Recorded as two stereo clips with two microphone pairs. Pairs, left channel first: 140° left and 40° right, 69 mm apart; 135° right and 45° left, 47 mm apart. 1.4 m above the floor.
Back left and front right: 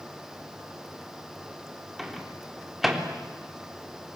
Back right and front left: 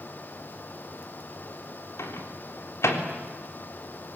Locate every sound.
2.0 s a microwave: 130° right, 3.5 m